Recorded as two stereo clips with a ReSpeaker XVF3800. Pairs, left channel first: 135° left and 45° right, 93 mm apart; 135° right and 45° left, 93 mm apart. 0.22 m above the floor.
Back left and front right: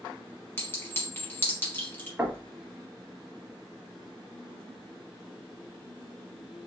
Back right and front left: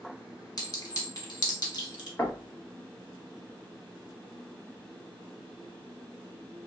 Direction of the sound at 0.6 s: 165° right.